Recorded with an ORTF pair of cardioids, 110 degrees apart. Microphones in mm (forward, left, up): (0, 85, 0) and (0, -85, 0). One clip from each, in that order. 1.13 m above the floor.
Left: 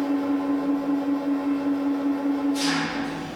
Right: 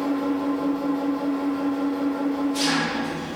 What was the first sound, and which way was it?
An engine running, 25° right.